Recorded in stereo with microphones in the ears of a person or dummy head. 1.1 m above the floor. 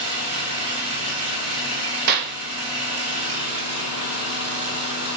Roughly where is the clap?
Right.